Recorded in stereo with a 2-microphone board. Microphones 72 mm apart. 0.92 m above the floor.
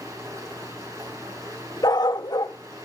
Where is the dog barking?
65° left (ahead or behind), 0.8 m.